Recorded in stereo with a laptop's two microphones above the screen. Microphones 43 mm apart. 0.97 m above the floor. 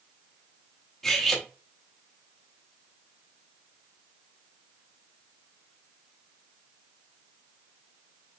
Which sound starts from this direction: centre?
Cutlery clinking, at 1.0 s.